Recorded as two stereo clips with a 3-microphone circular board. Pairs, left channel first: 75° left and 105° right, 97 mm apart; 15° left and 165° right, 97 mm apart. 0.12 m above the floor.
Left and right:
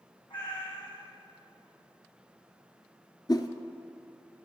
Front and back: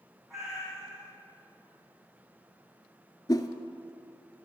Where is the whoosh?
50° left, 0.6 m.